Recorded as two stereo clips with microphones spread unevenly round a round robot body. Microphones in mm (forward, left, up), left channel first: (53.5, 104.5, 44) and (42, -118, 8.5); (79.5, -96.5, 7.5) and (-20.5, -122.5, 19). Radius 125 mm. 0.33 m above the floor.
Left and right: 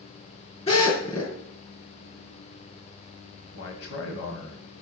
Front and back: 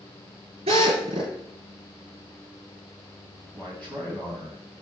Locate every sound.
0.7 s a drill: 155° left, 5 m
3.5 s a man speaking: 90° left, 2 m